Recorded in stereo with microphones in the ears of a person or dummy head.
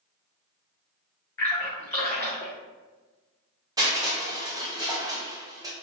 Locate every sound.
1.4 s a splash: 10° left (ahead or behind), 0.8 m
3.8 s crushing: 20° right (ahead or behind), 0.8 m